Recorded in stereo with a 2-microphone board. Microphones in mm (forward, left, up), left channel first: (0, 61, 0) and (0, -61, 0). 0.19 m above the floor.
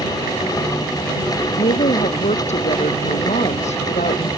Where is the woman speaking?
70° left (ahead or behind).